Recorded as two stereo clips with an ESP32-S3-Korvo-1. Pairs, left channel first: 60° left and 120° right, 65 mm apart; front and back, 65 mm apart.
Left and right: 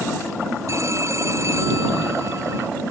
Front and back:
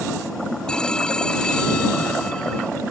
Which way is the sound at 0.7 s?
80° right.